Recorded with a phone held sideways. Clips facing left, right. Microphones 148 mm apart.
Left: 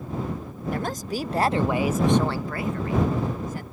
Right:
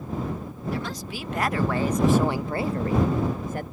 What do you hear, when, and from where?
0.7 s a woman speaking: 50° left (ahead or behind); by 3.6 s 55° right (ahead or behind)